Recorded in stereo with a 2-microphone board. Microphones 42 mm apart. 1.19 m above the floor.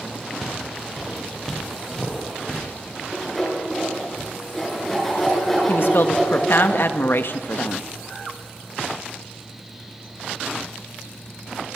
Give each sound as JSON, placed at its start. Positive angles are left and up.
{"t": 0.4, "sound": "footsteps", "side_deg": 0, "distance_m": 8.5}
{"t": 3.1, "sound": "sawing", "side_deg": 5, "distance_m": 8.5}
{"t": 5.7, "sound": "a woman speaking", "side_deg": 60, "distance_m": 1.5}